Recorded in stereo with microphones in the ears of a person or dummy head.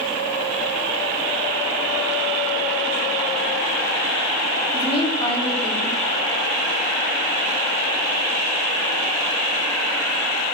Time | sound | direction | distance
4.7 | a woman speaking | 30° left (ahead or behind) | 3.5 m